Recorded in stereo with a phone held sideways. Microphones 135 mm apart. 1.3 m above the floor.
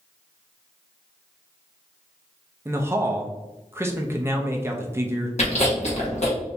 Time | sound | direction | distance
2.6 | a man speaking | 20° right (ahead or behind) | 0.5 m
5.4 | chewing | 55° left (ahead or behind) | 1.2 m